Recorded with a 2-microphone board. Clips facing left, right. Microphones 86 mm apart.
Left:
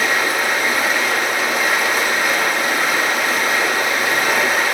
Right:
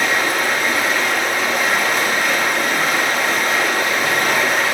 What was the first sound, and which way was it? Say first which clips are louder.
Running water: even; 10° left (ahead or behind).